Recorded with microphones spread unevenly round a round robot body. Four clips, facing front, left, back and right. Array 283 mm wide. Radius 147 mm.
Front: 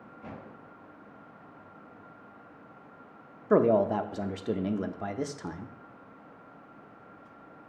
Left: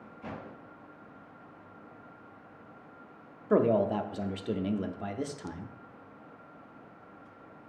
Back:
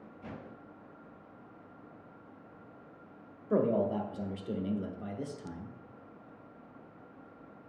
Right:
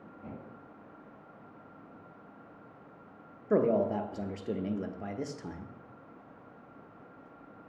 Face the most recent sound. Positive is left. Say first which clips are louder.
# left 2 dB, front 6 dB
turn(degrees=10)